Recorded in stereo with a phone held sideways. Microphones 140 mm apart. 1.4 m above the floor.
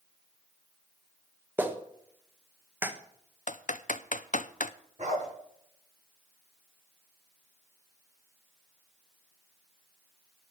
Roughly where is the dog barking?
Right.